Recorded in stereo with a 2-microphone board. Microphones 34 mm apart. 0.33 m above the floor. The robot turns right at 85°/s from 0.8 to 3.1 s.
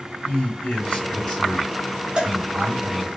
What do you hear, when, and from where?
0.2 s a man speaking: 105° left, 2.5 m; by 3.2 s 60° right, 2.5 m
2.2 s a cowbell: 25° right (ahead or behind), 3 m; by 2.4 s 35° right (ahead or behind), 3 m